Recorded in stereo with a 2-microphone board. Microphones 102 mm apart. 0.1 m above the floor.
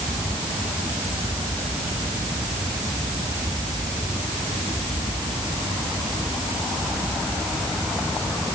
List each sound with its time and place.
Only background noise.